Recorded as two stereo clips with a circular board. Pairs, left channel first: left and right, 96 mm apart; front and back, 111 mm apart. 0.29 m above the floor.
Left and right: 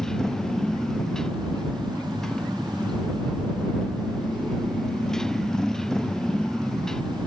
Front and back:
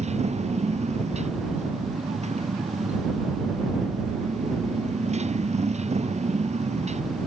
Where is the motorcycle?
175° left.